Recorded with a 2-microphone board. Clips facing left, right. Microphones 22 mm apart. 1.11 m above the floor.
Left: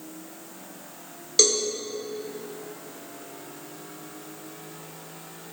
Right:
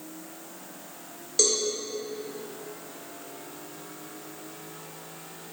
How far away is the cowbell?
About 2 m.